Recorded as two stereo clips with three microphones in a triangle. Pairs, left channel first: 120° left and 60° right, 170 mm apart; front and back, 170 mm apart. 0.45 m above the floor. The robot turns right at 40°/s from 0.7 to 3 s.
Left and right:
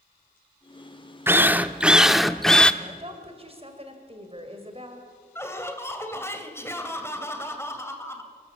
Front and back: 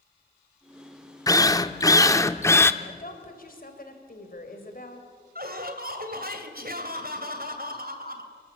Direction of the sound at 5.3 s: 165° right.